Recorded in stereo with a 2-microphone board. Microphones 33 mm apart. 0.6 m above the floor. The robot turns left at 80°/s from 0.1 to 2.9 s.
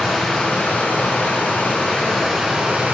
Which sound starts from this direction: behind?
Running water, at 0.0 s.